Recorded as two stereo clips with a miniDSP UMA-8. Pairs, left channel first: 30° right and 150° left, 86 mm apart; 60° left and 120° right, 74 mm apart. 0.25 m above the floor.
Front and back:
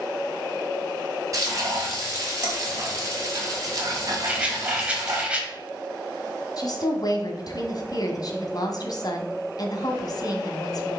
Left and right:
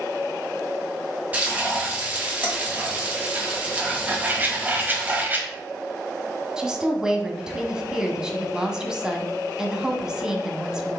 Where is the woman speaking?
45° right, 1.4 m.